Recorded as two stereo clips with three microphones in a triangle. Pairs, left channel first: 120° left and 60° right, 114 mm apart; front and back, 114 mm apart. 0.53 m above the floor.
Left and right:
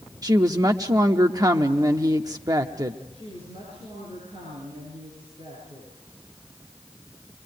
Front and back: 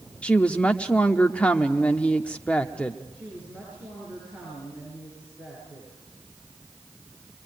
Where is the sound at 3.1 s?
100° right, 9 m.